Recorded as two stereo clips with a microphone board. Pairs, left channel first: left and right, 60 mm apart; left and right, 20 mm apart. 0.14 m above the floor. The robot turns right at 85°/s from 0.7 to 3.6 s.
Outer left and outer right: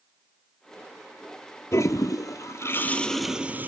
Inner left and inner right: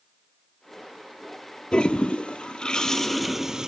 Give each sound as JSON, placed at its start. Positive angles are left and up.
{"t": 1.7, "sound": "a toilet flushing", "azimuth_deg": 50, "distance_m": 0.7}